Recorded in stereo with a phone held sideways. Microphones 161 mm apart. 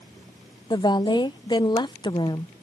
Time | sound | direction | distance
0.7 | a woman speaking | 25° left (ahead or behind) | ?